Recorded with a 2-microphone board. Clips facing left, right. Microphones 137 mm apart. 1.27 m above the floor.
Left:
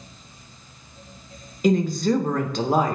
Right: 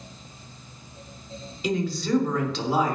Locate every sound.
1.6 s a woman speaking: 50° left (ahead or behind), 1.0 m